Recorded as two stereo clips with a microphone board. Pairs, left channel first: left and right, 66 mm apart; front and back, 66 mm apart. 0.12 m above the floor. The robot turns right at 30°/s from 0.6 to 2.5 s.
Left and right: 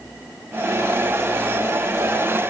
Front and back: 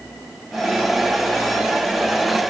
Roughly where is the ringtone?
No ringtone in this recording.